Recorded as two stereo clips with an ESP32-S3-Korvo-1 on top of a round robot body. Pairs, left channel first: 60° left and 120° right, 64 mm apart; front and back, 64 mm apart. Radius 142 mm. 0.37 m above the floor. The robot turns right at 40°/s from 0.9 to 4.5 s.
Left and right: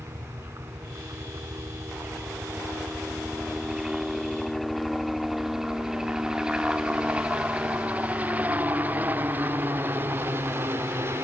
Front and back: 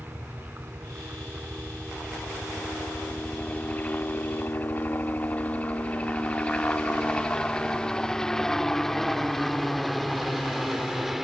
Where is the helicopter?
135° right; by 11.2 s 95° right.